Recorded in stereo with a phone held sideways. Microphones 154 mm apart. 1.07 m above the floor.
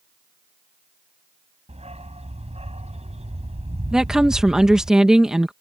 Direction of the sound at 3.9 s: 5° right (ahead or behind).